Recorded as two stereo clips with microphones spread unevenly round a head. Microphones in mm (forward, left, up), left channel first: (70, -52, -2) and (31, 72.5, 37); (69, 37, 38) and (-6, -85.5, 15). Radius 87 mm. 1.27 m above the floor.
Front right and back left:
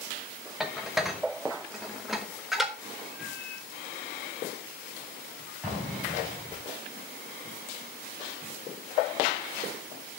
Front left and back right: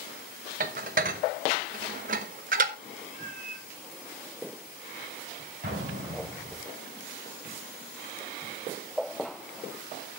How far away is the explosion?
About 5 m.